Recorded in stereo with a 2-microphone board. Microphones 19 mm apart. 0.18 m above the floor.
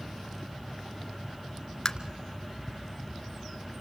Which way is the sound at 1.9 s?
30° left (ahead or behind).